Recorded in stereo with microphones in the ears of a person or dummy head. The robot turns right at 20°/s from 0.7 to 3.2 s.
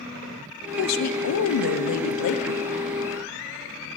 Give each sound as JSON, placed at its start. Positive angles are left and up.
{"t": 0.8, "sound": "a woman speaking", "azimuth_deg": 80, "distance_m": 0.6}